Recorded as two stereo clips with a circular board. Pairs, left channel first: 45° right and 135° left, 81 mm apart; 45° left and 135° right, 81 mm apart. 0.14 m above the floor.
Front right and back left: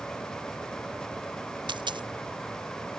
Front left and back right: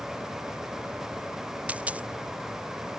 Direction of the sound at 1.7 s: 150° left.